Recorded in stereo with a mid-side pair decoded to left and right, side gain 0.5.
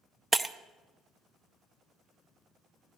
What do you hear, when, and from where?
0.3 s breaking glass: 25° right, 0.7 m